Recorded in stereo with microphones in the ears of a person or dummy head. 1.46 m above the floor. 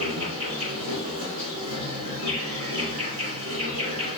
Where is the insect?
40° right (ahead or behind), 3 m.